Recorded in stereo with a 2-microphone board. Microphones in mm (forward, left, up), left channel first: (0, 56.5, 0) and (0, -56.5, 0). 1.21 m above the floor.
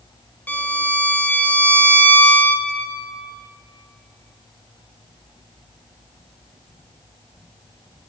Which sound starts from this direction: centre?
A violin, at 0.5 s.